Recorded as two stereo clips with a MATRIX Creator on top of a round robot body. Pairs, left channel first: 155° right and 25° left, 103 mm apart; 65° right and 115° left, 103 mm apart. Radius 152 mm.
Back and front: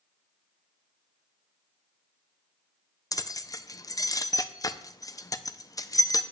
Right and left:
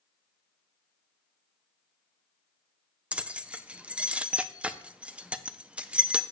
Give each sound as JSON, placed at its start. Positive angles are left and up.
{"t": 3.1, "sound": "keys jangling", "azimuth_deg": -175, "distance_m": 0.7}